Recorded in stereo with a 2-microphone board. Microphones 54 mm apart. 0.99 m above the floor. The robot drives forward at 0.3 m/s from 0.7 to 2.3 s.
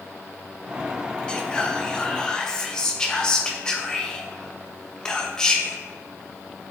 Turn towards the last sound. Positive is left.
turn(degrees=15)  # may be behind; listen again after turning